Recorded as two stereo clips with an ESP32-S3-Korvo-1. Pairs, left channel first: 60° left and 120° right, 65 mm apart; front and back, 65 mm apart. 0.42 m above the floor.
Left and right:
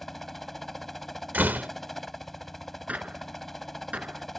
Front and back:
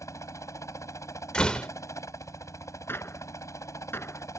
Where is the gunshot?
55° right.